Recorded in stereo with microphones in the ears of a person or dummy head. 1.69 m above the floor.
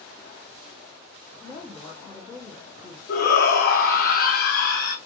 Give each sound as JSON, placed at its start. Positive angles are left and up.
{"t": 1.4, "sound": "a woman speaking", "side_deg": 10, "distance_m": 1.1}
{"t": 3.1, "sound": "a shout", "side_deg": 60, "distance_m": 1.3}